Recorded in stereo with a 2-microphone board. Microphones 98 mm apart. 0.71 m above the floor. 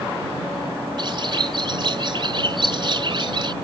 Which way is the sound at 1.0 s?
50° right (ahead or behind).